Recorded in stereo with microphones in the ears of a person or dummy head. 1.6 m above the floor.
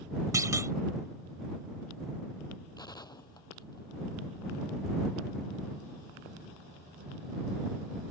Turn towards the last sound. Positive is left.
turn(degrees=20)  # may be behind; listen again after turning